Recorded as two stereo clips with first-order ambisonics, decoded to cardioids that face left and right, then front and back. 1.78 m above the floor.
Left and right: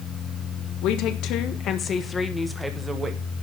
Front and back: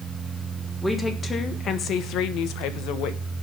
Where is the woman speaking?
80° left, 1.5 m; by 3.2 s 20° right, 1.5 m.